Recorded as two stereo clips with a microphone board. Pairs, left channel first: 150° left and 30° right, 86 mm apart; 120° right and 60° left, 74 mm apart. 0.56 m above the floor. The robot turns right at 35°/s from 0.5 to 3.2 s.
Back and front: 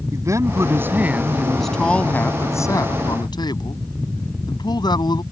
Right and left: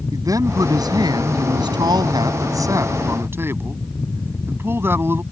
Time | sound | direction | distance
0.1 | a man speaking | 25° left | ?